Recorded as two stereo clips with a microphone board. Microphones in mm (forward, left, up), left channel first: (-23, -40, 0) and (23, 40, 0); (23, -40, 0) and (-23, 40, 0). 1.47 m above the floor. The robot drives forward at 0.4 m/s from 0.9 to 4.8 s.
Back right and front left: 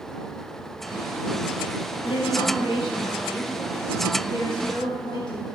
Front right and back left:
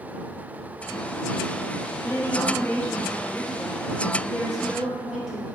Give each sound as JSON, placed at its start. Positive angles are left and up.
{"t": 2.0, "sound": "a woman speaking", "azimuth_deg": -120, "distance_m": 0.9}